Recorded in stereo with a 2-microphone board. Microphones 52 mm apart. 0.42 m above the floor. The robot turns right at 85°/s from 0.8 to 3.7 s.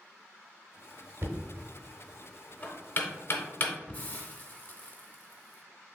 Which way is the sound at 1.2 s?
45° right (ahead or behind).